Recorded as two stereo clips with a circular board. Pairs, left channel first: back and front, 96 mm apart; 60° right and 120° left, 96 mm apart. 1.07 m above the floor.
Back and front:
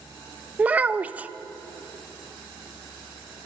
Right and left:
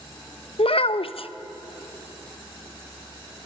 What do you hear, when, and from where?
0.6 s a child speaking: 75° right, 0.6 m